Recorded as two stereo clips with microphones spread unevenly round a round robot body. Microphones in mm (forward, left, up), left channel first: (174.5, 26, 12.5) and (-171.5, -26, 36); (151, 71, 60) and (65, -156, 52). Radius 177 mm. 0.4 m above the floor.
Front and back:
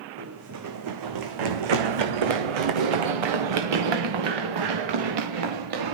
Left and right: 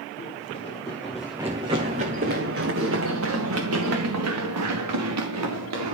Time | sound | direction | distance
0.2 | running footsteps | 135° left | 1.7 m